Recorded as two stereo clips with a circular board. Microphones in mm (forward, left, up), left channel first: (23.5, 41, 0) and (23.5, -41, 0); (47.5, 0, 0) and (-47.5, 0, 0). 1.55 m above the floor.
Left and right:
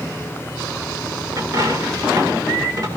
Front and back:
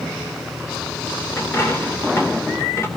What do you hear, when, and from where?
1.4 s a dropped coin: 55° right, 2 m